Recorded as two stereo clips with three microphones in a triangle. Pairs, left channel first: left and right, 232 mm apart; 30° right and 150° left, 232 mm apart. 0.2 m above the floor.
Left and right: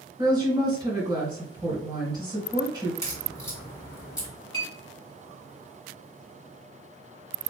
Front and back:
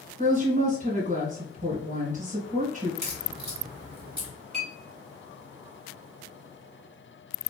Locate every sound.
0.2 s a woman speaking: 160° right, 2 m
3.0 s a crack: 160° left, 1.9 m
4.5 s a clink: 150° right, 2 m